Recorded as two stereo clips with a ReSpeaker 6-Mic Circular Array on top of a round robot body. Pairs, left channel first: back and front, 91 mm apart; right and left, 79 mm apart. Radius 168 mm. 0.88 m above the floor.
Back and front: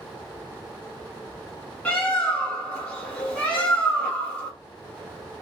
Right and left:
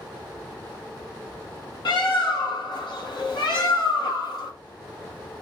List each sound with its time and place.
1.9 s a bird: 110° right, 2.5 m